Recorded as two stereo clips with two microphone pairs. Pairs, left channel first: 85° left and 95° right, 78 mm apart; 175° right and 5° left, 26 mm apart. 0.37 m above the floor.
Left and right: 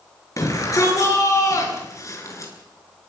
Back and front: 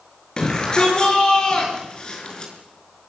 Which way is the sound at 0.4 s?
130° left.